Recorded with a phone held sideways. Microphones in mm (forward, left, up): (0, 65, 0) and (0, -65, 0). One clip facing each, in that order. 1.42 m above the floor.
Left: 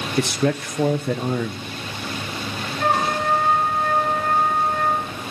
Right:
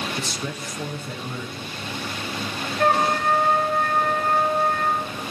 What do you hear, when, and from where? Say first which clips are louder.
0.2 s a man speaking: left 10 dB; 65° left (ahead or behind), 0.9 m
2.8 s a trumpet: right 1 dB; 50° right (ahead or behind), 7 m